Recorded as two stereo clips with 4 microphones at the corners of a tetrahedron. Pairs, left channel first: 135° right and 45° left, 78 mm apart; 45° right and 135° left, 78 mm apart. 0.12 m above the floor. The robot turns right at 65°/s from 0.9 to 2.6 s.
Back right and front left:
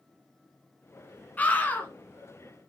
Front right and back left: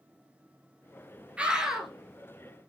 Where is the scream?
175° right, 1.4 m; by 1.9 s 140° right, 1.4 m.